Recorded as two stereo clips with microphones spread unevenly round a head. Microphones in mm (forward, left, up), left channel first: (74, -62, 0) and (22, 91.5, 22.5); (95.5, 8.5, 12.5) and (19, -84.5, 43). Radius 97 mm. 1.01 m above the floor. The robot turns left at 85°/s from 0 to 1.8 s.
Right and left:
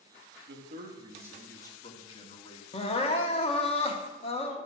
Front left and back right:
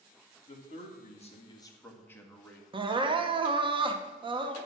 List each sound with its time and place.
0.5 s a man speaking: 95° left, 2 m; by 2.6 s 20° right, 2 m
2.7 s crying: 80° right, 1.0 m